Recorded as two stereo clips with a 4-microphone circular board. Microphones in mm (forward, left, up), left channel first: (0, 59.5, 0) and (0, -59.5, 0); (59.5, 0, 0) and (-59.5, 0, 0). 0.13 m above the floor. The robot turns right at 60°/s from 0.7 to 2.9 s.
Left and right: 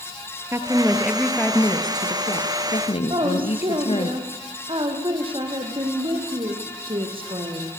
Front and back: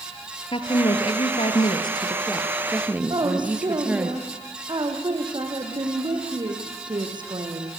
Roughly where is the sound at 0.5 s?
Ahead right.